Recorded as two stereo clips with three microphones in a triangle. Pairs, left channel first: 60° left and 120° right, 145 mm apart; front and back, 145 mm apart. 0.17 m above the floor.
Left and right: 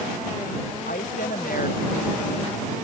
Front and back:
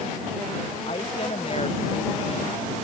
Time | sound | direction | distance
0.9 | a woman speaking | 45° left | ?